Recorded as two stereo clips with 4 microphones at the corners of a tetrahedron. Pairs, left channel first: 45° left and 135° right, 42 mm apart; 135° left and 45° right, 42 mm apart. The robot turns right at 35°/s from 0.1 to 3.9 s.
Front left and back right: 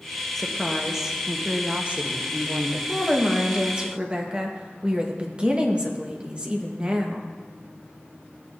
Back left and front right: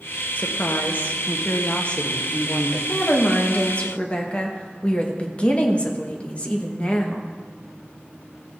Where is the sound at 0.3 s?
125° left, 0.9 m; by 2.8 s 150° right, 0.9 m.